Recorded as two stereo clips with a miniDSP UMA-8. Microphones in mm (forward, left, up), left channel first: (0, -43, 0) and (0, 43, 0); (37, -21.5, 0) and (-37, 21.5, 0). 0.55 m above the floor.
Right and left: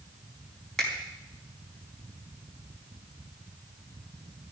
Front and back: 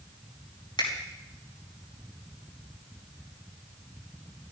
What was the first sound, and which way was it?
A finger snap, 5° right.